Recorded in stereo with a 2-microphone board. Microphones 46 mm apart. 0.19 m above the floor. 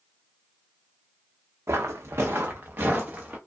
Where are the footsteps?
75° right (ahead or behind), 0.6 m; by 3.4 s 30° right (ahead or behind), 1.1 m.